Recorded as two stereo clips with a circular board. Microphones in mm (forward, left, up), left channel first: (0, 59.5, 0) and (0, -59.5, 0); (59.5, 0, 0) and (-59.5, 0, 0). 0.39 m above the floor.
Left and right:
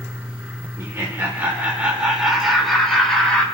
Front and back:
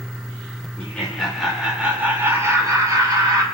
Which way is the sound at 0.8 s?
60° right.